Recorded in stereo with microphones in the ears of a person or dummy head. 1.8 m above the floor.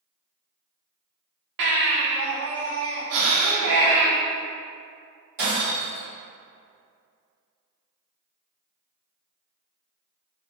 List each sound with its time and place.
1.6 s a baby crying: 60° right (ahead or behind), 1.1 m
3.1 s breathing: 80° right, 0.7 m
5.4 s breaking glass: 45° right (ahead or behind), 1.9 m